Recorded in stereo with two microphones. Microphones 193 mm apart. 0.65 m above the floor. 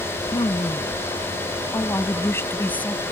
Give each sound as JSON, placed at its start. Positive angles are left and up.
{"t": 0.3, "sound": "a woman speaking", "side_deg": 25}